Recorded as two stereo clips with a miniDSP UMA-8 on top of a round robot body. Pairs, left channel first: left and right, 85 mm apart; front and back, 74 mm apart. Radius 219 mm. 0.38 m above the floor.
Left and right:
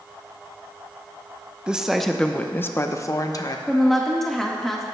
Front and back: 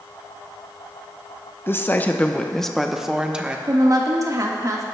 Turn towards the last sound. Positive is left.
turn(degrees=175)